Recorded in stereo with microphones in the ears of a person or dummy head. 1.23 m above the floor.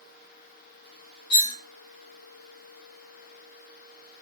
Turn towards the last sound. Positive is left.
turn(degrees=60)  # may be behind; listen again after turning